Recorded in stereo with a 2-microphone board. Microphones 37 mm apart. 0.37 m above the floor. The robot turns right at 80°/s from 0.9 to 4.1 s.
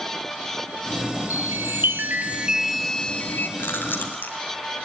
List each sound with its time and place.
1.3 s a chime: 115° right, 1.5 m; by 3.5 s 60° left, 1.5 m
3.6 s chewing: 60° left (ahead or behind), 3 m; by 4.3 s 55° left (ahead or behind), 3 m